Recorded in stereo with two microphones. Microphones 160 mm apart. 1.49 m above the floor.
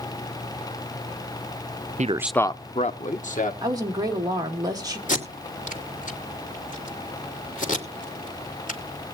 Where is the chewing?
I don't hear chewing.